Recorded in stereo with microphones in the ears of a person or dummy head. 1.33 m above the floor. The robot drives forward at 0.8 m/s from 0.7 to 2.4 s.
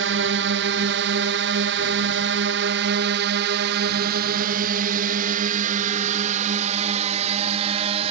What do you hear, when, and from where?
0.0 s a drone: 65° right (ahead or behind); by 8.1 s 40° right (ahead or behind)